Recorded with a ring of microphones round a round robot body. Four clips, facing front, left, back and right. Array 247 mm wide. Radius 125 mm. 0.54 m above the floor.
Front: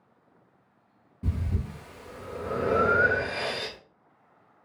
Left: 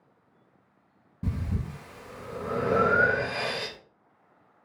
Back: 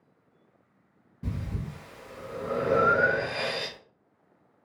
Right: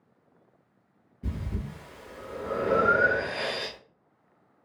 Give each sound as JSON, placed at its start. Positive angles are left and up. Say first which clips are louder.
{"t": 1.2, "sound": "breathing", "louder": "left 3 dB, front 2 dB", "azimuth_deg": 95, "distance_m": 1.4}